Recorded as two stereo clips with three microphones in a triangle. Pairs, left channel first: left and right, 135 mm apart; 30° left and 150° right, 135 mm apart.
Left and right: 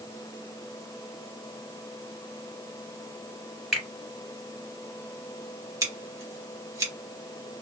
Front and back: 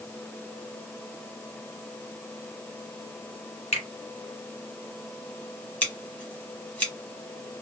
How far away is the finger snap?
About 2.5 m.